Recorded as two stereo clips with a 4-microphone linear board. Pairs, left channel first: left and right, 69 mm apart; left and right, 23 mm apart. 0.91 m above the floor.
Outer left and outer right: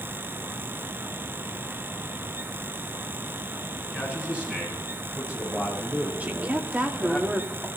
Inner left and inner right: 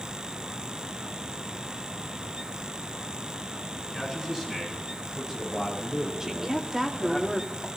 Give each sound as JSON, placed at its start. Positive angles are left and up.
{"t": 3.8, "sound": "a man speaking", "side_deg": -20, "distance_m": 7.5}
{"t": 6.2, "sound": "a woman speaking", "side_deg": -25, "distance_m": 2.5}